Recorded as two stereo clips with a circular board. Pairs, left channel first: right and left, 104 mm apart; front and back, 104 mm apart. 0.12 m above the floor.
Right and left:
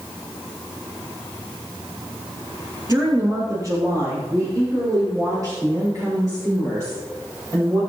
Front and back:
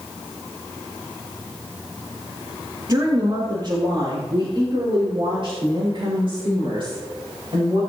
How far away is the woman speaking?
About 2.5 m.